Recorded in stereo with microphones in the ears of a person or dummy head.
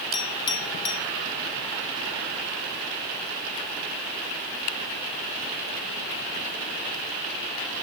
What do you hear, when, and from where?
0.1 s a clink: 30° left (ahead or behind), 3 m